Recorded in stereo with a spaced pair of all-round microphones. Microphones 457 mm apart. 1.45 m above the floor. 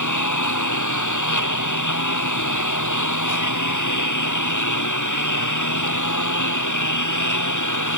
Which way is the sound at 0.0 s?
40° left (ahead or behind).